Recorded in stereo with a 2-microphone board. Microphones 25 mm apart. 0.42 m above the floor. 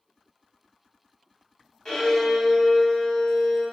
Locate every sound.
1.9 s a violin: 25° left (ahead or behind), 1.4 m